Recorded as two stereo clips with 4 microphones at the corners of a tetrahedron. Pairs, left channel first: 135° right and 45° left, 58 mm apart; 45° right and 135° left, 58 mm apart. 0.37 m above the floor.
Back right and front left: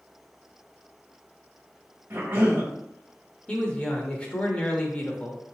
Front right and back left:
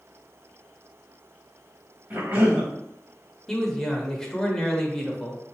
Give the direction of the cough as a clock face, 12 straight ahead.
9 o'clock.